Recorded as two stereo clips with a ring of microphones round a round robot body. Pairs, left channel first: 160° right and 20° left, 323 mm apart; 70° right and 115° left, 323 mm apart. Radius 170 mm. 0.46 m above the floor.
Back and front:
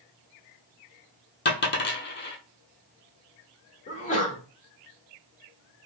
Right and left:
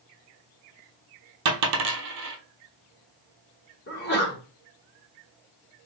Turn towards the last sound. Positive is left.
turn(degrees=-105)